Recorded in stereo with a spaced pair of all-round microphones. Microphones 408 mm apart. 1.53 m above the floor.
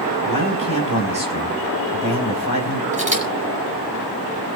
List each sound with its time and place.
0.2 s a man speaking: 50° left (ahead or behind), 4.5 m
2.9 s a camera shutter: 20° right (ahead or behind), 5 m